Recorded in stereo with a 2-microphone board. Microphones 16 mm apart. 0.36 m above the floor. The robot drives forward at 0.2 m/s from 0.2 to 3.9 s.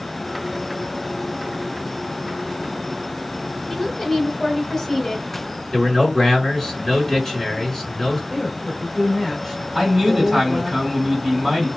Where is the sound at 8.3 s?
5° right (ahead or behind), 1.4 m.